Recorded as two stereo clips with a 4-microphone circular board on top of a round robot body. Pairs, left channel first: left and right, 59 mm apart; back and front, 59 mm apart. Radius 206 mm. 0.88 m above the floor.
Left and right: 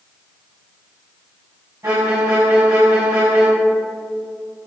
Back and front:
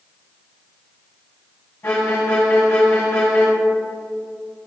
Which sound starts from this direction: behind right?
A violin, at 1.8 s.